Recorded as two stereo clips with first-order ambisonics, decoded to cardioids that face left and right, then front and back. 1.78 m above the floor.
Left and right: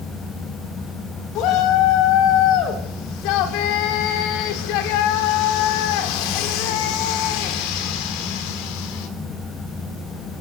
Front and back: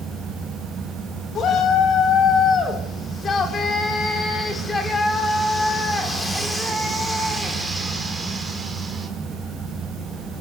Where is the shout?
55° left, 5.5 m; by 9.1 s 100° left, 5.5 m.